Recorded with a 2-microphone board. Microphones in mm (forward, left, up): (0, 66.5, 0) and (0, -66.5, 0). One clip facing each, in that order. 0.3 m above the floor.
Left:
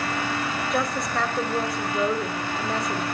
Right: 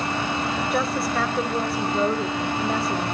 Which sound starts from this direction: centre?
A woman speaking, at 0.7 s.